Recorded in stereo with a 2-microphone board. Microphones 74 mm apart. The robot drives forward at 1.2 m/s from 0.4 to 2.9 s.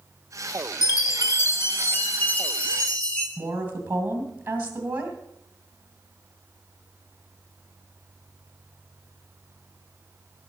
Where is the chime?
60° left (ahead or behind), 1.0 m; by 3.3 s 20° left (ahead or behind), 3 m.